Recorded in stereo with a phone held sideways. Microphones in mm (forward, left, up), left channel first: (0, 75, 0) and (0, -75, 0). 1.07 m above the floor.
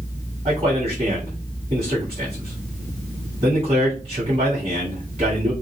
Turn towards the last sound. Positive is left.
turn(degrees=-45)  # may be behind; listen again after turning